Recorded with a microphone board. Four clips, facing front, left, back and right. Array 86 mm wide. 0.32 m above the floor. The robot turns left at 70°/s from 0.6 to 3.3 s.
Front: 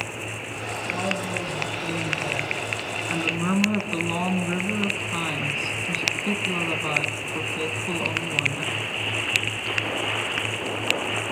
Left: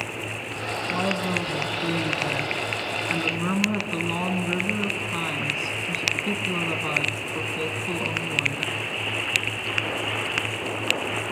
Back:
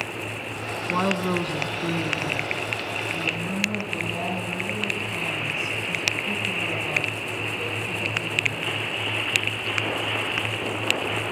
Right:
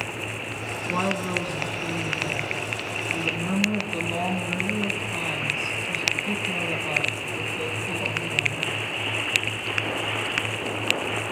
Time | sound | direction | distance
0.9 | a woman speaking | 155° right | 2.5 m